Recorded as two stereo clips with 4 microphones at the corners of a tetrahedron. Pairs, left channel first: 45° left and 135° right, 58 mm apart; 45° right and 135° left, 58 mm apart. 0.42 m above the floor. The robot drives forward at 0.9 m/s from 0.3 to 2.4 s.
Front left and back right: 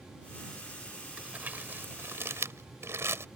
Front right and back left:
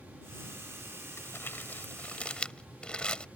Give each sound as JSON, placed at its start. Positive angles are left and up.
{"t": 1.2, "sound": "crumpling", "azimuth_deg": -75}